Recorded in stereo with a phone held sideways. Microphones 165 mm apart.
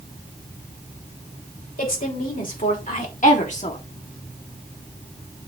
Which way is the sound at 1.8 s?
60° left (ahead or behind).